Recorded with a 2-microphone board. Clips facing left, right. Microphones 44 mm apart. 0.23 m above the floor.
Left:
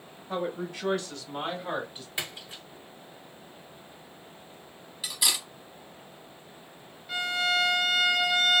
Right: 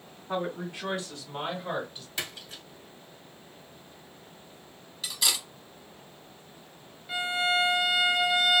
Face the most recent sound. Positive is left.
turn(degrees=-10)  # may be behind; listen again after turning